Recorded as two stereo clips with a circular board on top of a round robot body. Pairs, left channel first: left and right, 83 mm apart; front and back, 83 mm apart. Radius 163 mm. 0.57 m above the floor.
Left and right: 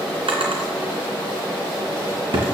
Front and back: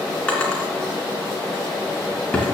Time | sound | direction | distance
0.3 | a drawer | 75° right | 2.5 m